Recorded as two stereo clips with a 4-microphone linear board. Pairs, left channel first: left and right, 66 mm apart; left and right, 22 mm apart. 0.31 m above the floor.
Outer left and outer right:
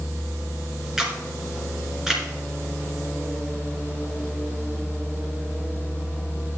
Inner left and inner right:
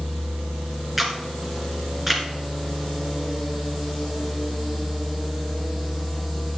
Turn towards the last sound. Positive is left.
turn(degrees=-10)  # may be behind; listen again after turning